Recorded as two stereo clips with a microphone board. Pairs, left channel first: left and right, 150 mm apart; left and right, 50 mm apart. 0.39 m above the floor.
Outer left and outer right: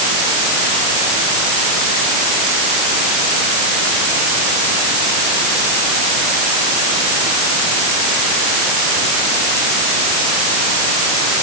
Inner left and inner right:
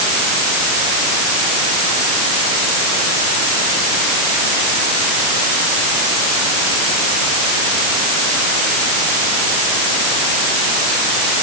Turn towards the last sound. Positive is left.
No sound to turn to.